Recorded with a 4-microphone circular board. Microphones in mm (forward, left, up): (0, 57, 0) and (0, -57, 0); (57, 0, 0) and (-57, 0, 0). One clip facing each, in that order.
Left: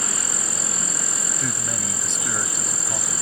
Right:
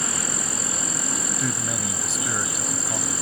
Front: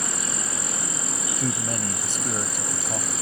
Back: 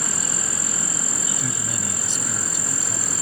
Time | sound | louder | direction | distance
0.0 | an insect | right 2 dB, even | 65° right | ?
1.4 | a man speaking | right 1 dB, front 3 dB | 5° right | ?